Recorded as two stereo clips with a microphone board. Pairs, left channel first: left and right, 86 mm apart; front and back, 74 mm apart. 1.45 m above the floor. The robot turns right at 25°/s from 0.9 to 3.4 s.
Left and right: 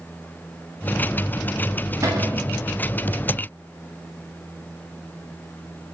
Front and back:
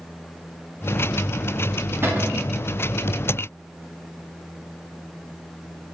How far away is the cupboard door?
About 0.9 m.